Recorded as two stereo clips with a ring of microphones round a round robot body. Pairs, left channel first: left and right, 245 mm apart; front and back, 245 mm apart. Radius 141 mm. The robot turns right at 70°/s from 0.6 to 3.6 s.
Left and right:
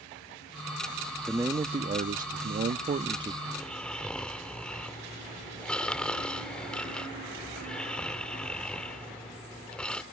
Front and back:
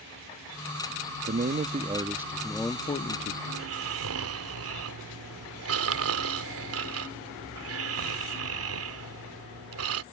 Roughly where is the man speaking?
Behind.